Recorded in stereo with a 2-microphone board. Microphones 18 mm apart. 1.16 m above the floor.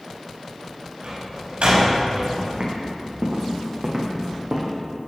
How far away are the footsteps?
About 4 m.